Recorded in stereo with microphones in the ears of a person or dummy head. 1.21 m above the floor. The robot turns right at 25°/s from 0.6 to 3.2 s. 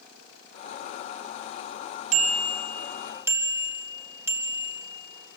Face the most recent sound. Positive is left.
turn(degrees=-15)  # may be behind; listen again after turning